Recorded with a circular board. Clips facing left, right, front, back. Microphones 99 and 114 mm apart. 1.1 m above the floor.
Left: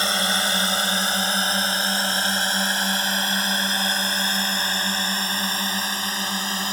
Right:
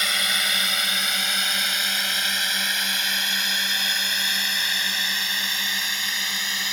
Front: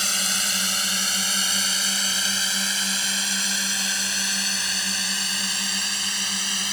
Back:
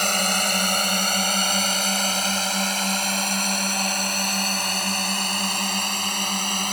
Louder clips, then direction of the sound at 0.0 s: Left 4 dB, back 8 dB; 145° left.